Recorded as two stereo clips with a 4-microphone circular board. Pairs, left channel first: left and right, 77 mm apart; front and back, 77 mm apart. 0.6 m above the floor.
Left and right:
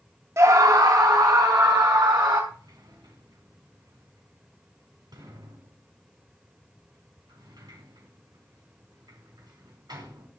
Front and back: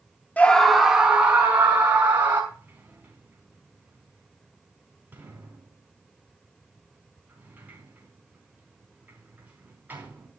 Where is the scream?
60° right, 1.0 m; by 2.4 s 120° right, 3.5 m.